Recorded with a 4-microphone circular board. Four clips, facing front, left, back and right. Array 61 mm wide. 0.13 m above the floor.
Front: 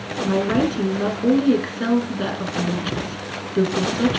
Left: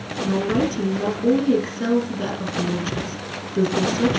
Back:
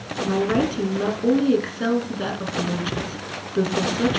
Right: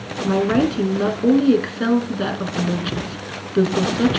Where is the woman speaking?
85° right, 1.4 m.